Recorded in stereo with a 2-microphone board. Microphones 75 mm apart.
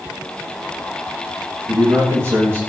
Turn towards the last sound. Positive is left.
turn(degrees=-35)  # may be behind; listen again after turning